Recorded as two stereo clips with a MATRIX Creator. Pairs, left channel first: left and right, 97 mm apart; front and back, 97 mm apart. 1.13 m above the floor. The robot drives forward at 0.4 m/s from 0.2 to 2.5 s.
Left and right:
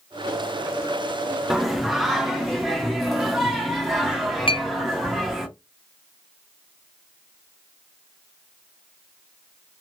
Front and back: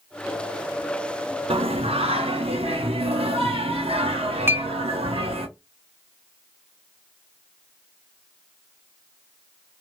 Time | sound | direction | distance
1.5 | singing | 175° right | 0.5 m
4.5 | a clink | 115° left | 0.5 m